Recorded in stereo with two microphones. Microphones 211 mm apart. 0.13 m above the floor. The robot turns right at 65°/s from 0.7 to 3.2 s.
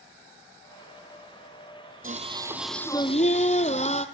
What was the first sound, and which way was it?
Singing, 40° right.